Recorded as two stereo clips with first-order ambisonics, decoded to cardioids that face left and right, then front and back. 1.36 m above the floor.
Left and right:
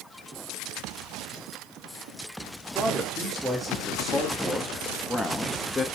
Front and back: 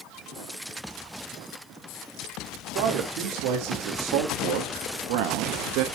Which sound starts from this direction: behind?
A man speaking, at 2.8 s.